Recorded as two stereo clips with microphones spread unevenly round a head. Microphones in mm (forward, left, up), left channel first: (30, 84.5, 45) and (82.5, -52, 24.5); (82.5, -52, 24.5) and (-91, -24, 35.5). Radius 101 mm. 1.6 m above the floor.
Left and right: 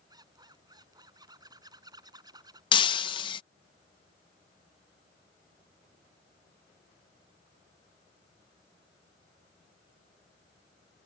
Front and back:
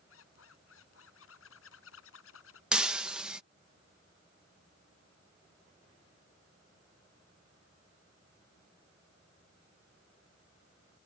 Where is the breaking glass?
90° left.